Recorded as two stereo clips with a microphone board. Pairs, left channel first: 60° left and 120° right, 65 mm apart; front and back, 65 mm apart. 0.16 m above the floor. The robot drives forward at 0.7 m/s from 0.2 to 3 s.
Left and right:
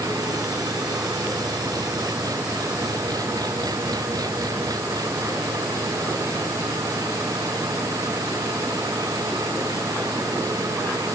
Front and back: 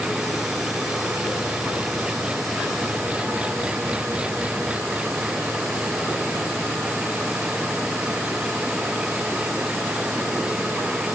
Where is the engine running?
100° right; by 11.2 s 105° right.